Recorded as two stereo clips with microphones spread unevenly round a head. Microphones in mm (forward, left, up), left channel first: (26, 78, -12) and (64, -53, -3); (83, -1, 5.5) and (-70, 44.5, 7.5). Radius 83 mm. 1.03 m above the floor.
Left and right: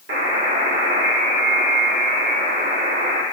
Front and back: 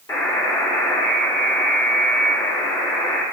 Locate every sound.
0.1 s a buzzer: 90° right, 2 m